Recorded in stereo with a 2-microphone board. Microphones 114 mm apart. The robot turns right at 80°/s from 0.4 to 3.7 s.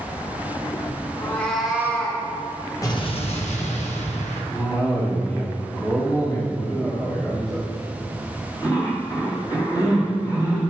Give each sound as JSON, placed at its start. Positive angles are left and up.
{"t": 1.2, "sound": "a cat meowing", "azimuth_deg": 145, "distance_m": 2.0}
{"t": 2.8, "sound": "an explosion", "azimuth_deg": 30, "distance_m": 1.4}
{"t": 4.5, "sound": "a cough", "side_deg": 30, "distance_m": 3.5}